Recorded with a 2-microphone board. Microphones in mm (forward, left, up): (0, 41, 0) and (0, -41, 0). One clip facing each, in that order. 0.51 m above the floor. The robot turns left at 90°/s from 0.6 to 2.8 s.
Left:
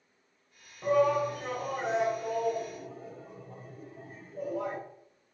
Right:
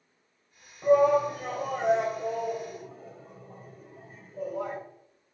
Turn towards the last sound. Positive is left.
turn(degrees=0)  # may be behind; listen again after turning